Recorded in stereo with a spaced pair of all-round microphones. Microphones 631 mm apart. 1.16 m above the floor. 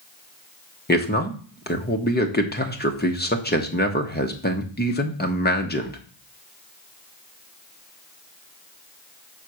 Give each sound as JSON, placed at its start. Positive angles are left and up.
{"t": 0.9, "sound": "a man speaking", "side_deg": 15, "distance_m": 1.0}